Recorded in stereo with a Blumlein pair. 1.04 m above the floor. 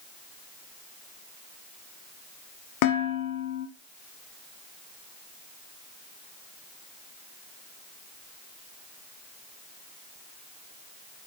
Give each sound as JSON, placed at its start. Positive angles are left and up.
{"t": 2.8, "sound": "dishes clattering", "azimuth_deg": 45, "distance_m": 1.3}